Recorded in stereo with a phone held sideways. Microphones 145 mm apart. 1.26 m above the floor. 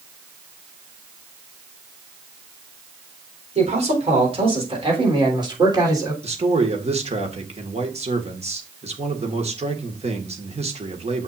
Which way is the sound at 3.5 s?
50° right (ahead or behind).